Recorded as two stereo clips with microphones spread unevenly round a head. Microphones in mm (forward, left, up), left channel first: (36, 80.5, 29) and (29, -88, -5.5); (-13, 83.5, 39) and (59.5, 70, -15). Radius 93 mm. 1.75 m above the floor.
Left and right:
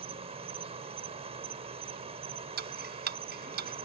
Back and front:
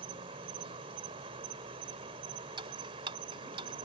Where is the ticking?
60° right.